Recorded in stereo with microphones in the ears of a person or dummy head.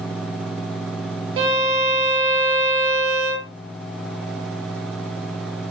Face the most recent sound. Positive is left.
turn(degrees=-60)  # may be behind; listen again after turning